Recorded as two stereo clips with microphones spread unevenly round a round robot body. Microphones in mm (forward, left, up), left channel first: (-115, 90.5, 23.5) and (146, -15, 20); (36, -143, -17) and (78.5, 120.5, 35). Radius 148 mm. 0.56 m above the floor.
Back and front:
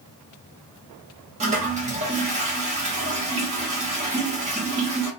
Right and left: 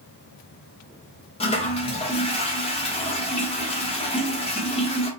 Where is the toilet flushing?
70° right, 1.1 m.